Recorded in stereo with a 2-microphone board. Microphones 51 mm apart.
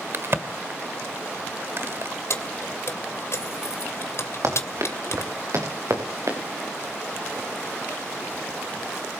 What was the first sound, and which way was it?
A crack, 55° right (ahead or behind).